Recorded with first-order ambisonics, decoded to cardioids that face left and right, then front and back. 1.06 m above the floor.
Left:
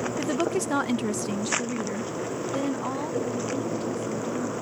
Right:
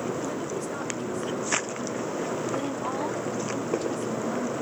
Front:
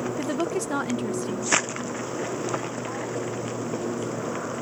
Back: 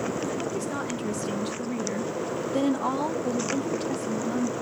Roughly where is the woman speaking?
Ahead left.